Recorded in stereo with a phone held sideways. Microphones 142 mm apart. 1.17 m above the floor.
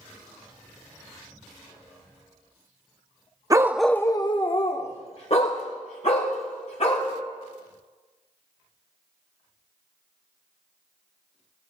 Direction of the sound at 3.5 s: 25° right (ahead or behind).